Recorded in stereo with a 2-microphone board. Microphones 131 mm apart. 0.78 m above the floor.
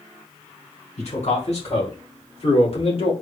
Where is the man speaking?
65° left (ahead or behind), 3 m; by 3.1 s 50° left (ahead or behind), 1.7 m.